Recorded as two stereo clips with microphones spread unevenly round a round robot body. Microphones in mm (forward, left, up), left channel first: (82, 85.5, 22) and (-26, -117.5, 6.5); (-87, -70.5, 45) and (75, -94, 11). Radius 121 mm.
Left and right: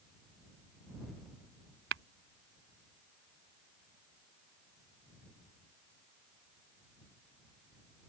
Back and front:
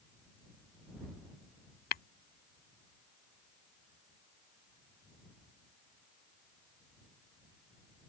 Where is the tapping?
165° right.